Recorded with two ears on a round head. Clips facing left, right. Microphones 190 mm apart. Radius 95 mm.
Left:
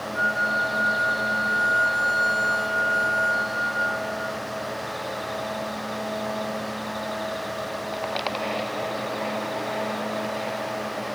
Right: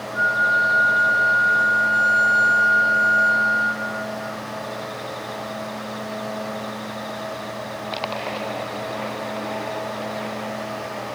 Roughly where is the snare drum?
No snare drum in this recording.